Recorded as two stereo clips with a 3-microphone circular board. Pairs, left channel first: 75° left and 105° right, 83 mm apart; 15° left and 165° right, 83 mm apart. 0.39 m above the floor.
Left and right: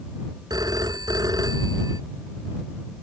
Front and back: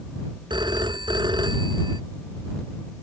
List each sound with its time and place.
0.5 s a phone ringing: 145° right